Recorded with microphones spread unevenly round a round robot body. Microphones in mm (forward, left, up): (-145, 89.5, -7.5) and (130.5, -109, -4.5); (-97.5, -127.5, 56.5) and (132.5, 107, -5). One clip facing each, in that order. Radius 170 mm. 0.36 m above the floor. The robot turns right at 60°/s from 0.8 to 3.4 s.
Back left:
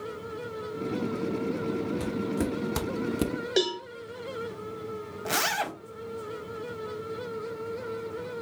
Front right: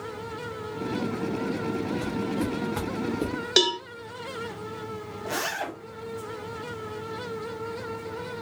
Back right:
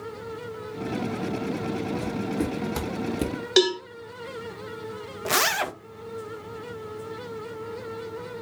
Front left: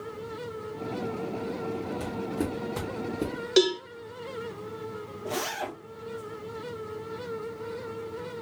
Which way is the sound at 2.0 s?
115° left.